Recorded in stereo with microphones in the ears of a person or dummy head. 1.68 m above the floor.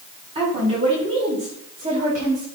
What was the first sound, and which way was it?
A woman speaking, 30° right (ahead or behind).